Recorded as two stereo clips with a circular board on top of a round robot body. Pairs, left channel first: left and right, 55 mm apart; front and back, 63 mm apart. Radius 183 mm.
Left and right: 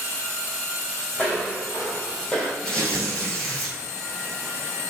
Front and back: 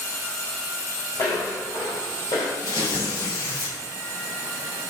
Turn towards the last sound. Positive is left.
turn(degrees=15)